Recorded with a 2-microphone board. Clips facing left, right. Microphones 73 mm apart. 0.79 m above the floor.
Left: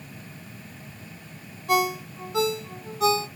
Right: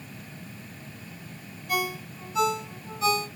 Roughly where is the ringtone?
Left.